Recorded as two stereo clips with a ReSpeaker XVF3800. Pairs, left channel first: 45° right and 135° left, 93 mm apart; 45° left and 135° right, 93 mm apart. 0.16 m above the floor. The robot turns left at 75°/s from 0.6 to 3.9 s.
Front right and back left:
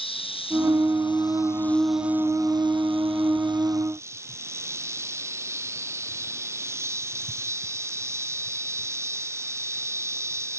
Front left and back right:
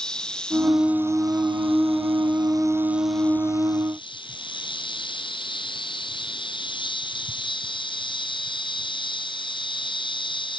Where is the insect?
35° right; by 10.6 s 75° left.